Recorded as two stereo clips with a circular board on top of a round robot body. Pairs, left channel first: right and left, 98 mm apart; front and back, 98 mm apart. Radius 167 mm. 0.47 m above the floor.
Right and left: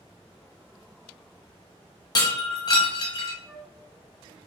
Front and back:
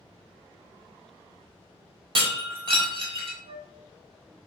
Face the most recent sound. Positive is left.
turn(degrees=170)